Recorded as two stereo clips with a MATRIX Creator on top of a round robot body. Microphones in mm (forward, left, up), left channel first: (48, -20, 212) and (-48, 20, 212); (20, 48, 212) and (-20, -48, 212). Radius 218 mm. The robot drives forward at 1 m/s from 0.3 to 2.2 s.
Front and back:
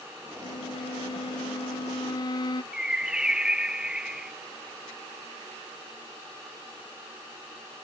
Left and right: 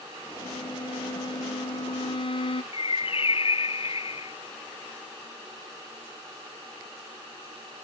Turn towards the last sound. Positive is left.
turn(degrees=75)